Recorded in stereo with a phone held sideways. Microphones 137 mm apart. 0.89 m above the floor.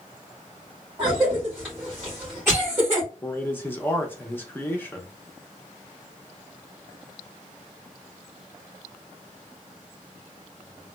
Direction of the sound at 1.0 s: 15° right (ahead or behind).